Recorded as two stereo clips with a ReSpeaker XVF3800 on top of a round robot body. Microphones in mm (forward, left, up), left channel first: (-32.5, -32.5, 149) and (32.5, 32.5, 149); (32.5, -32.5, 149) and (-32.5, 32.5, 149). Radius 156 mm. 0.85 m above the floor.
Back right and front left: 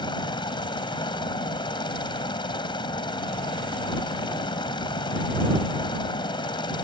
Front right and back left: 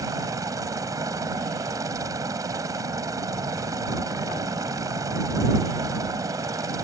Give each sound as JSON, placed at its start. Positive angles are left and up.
{"t": 0.0, "sound": "a helicopter", "azimuth_deg": -170}